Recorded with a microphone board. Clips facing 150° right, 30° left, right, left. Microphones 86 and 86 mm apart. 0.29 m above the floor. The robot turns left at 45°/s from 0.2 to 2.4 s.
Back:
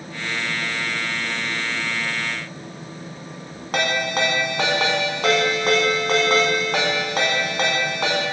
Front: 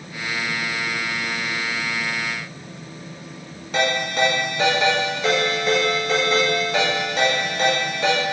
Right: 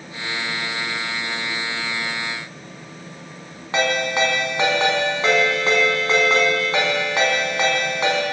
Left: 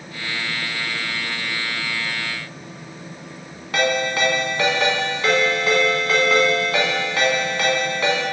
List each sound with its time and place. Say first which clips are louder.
3.7 s a ringtone: front 1 dB, even; 155° right, 1.6 m